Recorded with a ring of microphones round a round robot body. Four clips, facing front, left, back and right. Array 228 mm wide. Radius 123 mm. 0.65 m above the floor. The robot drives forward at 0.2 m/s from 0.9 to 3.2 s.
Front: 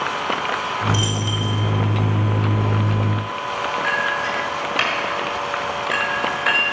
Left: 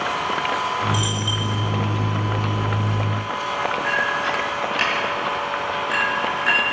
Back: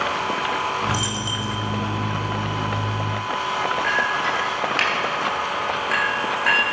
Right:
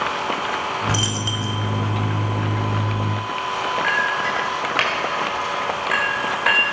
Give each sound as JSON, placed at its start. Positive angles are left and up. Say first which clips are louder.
{"t": 0.9, "sound": "a dropped coin", "louder": "left 1 dB, front 2 dB", "azimuth_deg": -90, "distance_m": 1.3}
{"t": 3.8, "sound": "a clink", "louder": "right 1 dB, even", "azimuth_deg": -100, "distance_m": 1.8}